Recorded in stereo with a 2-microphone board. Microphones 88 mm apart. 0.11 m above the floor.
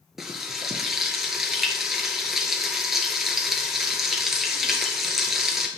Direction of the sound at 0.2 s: 5° right (ahead or behind).